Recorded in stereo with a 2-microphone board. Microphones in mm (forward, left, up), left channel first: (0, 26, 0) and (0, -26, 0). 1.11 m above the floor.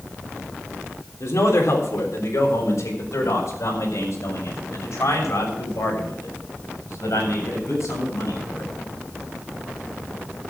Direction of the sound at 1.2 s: 85° left.